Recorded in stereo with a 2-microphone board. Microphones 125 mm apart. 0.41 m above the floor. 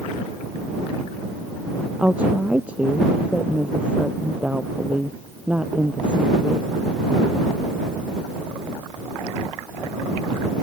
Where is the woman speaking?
10° right (ahead or behind).